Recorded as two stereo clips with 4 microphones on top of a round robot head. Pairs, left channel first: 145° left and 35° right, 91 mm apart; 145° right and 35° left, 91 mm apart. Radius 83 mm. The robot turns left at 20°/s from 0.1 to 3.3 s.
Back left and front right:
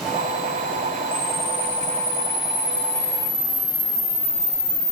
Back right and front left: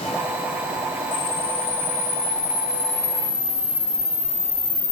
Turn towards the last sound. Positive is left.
turn(degrees=170)